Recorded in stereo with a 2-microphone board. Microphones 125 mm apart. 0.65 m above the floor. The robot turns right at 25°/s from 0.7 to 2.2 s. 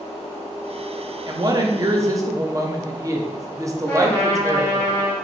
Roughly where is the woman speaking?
Right.